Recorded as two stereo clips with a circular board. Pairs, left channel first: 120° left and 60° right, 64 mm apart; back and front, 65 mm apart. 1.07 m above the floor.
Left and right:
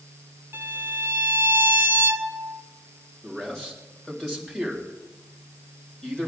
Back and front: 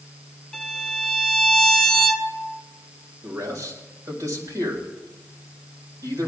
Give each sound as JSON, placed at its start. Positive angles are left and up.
{"t": 0.5, "sound": "a violin", "azimuth_deg": -90, "distance_m": 1.0}
{"t": 3.2, "sound": "a man speaking", "azimuth_deg": 40, "distance_m": 4.0}